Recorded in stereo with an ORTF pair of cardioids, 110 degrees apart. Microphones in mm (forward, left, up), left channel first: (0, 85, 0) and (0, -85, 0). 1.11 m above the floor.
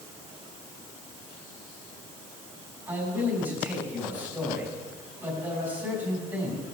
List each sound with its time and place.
2.9 s a man speaking: 15° right, 5.5 m